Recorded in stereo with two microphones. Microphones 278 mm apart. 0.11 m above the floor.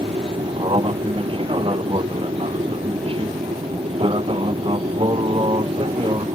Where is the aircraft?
20° right (ahead or behind).